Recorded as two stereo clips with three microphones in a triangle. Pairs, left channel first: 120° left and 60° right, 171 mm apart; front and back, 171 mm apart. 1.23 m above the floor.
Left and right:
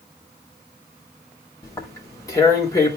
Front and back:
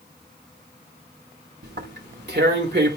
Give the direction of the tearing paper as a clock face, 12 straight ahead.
6 o'clock.